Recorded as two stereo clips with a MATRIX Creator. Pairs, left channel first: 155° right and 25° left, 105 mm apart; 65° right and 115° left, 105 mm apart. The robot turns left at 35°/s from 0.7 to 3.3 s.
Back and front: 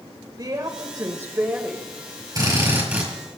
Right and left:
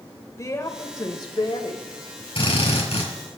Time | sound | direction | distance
0.4 | a woman speaking | 20° right | 1.9 m
2.4 | a drill | 30° right | 5 m